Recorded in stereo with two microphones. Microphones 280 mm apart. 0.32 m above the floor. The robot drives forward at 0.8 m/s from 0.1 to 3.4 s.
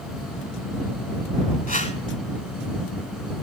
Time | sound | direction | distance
1.7 | a whoosh | 30° left (ahead or behind) | 0.8 m